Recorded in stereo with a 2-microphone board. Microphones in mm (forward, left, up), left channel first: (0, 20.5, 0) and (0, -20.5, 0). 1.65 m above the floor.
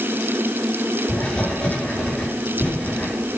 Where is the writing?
25° left (ahead or behind), 6 m.